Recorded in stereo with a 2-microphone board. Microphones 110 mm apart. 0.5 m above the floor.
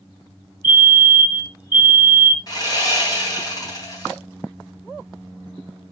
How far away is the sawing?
About 3.5 m.